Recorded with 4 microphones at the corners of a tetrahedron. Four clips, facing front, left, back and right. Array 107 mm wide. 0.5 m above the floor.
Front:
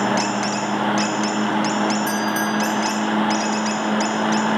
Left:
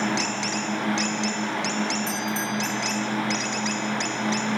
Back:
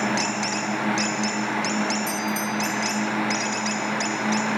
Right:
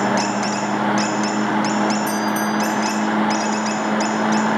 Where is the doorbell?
10° right, 5 m.